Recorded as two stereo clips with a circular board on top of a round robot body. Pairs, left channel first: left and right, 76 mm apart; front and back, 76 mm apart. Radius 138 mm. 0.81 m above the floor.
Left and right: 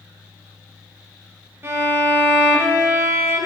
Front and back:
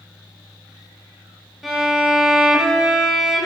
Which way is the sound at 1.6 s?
95° right.